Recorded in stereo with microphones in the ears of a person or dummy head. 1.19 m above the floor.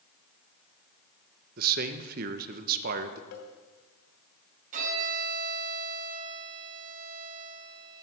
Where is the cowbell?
55° left (ahead or behind), 2 m.